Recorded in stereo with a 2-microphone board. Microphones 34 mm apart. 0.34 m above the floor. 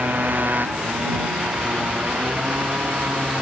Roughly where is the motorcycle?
Right.